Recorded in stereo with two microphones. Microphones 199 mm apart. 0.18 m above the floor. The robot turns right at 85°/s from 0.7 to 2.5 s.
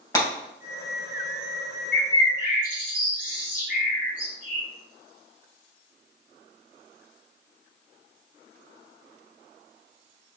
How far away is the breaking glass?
About 2.5 m.